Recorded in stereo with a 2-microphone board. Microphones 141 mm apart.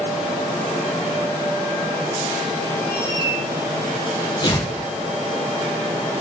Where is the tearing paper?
35° left (ahead or behind), 3 m.